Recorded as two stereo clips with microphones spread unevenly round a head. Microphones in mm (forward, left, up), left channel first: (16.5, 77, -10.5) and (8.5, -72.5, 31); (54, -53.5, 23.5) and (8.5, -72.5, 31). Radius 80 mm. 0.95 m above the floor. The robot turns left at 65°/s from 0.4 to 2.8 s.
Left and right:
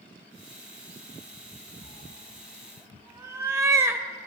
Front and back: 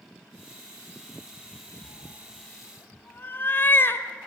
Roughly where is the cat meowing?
Ahead left.